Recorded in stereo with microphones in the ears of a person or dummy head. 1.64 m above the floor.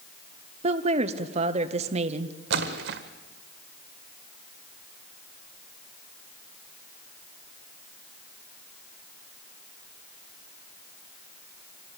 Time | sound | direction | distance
0.6 | a woman speaking | 40° right (ahead or behind) | 0.9 m
2.5 | a splash | 65° right (ahead or behind) | 1.6 m